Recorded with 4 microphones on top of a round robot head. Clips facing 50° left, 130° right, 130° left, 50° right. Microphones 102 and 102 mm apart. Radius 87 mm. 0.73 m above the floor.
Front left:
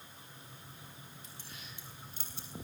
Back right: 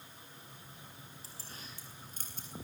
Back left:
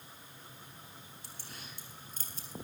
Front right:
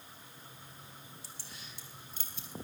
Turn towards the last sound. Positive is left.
turn(degrees=-175)